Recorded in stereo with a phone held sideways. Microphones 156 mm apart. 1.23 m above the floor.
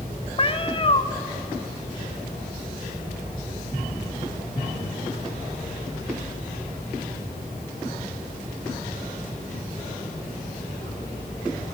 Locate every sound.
0.4 s a cat meowing: 35° left (ahead or behind), 0.6 m